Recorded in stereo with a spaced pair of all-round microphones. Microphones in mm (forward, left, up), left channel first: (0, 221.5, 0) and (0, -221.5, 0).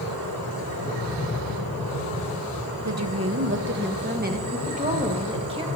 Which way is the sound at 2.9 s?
40° right (ahead or behind).